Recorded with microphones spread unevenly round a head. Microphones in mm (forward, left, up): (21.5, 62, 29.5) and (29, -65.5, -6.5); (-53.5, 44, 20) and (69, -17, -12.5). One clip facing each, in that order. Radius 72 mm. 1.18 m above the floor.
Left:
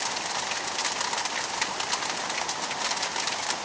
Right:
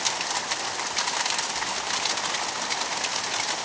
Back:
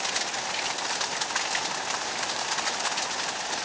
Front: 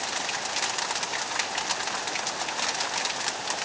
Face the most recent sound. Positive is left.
No sound to turn to.